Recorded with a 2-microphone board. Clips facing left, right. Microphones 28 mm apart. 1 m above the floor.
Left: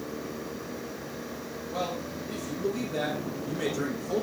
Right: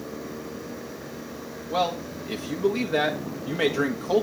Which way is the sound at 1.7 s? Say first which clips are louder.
Right 7 dB; 50° right (ahead or behind).